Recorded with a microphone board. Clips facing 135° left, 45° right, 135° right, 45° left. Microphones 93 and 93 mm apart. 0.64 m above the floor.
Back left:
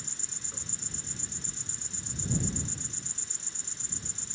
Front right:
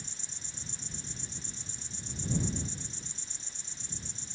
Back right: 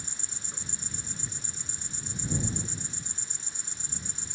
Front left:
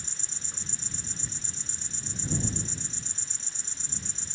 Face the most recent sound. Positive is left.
turn(degrees=150)